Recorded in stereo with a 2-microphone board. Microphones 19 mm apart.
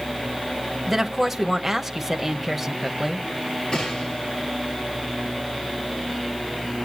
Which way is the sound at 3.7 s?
70° left (ahead or behind).